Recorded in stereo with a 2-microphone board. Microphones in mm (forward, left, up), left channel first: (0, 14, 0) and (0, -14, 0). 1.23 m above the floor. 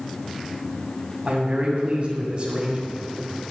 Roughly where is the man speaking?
Right.